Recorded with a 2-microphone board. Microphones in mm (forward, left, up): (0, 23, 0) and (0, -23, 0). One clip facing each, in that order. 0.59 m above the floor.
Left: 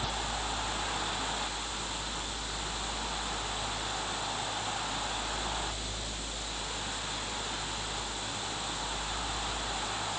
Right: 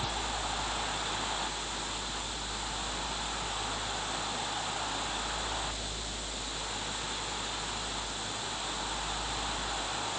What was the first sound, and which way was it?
Only background noise.